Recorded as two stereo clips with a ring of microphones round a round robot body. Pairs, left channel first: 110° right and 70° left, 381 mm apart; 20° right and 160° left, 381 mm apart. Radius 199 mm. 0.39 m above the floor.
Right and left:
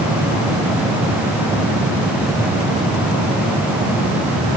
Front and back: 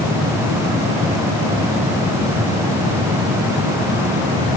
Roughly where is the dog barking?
I don't hear a dog barking.